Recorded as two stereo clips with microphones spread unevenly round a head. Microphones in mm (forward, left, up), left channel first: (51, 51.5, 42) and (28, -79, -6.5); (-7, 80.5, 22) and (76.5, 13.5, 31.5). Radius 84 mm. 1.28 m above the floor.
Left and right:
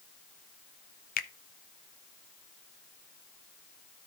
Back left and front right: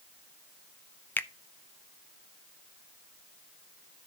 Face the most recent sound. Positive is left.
turn(degrees=65)